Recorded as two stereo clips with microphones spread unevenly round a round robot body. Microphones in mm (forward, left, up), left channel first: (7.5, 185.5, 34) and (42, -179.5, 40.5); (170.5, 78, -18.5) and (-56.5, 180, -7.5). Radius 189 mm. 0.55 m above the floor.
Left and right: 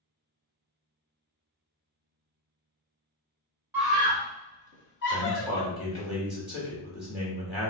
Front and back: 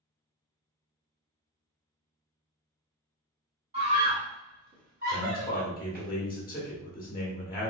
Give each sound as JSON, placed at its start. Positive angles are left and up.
{"t": 3.7, "sound": "a scream", "azimuth_deg": -165, "distance_m": 1.2}
{"t": 5.1, "sound": "a man speaking", "azimuth_deg": 5, "distance_m": 1.1}